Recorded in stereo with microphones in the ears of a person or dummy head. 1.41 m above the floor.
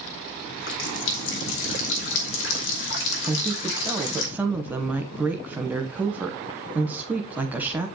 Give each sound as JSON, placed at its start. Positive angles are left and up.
{"t": 0.4, "sound": "a running tap", "side_deg": 75, "distance_m": 1.7}
{"t": 3.3, "sound": "a woman speaking", "side_deg": -10, "distance_m": 0.9}